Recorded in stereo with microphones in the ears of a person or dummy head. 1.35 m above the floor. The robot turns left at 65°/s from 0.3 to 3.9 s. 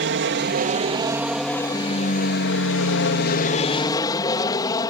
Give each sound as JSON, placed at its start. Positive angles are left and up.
{"t": 0.0, "sound": "an aircraft", "azimuth_deg": -110}